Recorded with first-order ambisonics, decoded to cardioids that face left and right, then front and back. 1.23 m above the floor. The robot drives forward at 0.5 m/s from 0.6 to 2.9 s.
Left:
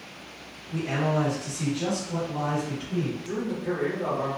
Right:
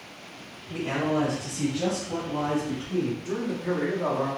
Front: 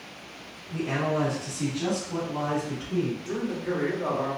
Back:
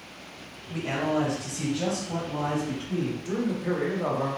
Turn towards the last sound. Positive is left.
turn(degrees=-155)